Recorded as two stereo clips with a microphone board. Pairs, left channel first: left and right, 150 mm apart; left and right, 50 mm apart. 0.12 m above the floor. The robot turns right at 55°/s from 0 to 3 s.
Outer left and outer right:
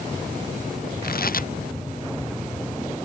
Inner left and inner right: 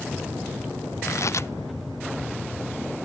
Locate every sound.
1.0 s tearing paper: 90° left; by 1.5 s 65° left (ahead or behind)